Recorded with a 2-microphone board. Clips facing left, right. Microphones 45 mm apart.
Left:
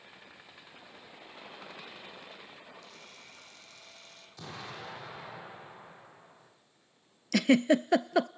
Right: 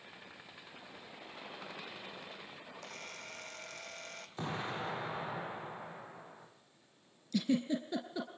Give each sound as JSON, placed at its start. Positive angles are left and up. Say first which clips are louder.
{"t": 2.8, "sound": "a camera shutter", "louder": "right 4 dB", "side_deg": -55, "distance_m": 3.5}
{"t": 4.4, "sound": "an explosion", "louder": "right 5 dB", "side_deg": -30, "distance_m": 9.0}
{"t": 7.3, "sound": "a giggle", "louder": "left 9 dB", "side_deg": 85, "distance_m": 0.8}